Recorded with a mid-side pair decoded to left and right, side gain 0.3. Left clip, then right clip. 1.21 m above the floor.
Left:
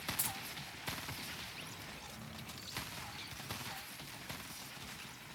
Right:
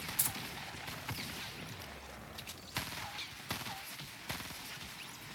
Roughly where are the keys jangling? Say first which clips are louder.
Right 2 dB; ahead right.